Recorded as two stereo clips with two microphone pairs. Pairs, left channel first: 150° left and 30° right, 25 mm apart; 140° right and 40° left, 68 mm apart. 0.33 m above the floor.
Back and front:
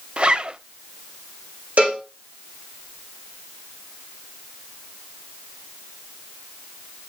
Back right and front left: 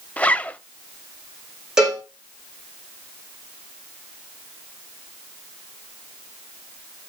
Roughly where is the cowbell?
Ahead right.